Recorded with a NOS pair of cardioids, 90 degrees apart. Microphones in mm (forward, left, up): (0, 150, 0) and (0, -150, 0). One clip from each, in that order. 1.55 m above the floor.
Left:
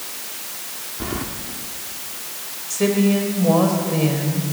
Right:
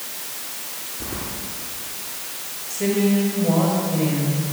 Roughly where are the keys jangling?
Ahead left.